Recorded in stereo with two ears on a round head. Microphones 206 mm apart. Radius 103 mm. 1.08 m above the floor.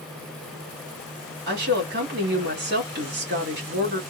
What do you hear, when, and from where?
1.5 s a woman speaking: 45° right (ahead or behind), 1.8 m